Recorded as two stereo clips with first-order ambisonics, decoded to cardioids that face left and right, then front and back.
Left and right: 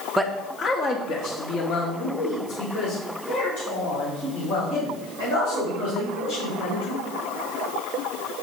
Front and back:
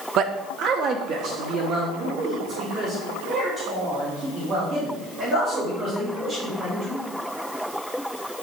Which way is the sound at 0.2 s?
Straight behind.